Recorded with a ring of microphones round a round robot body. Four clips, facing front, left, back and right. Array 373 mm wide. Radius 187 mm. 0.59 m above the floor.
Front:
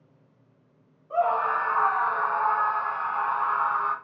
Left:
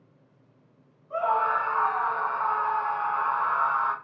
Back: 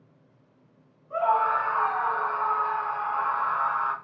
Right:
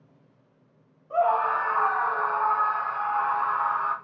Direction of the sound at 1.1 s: 40° right.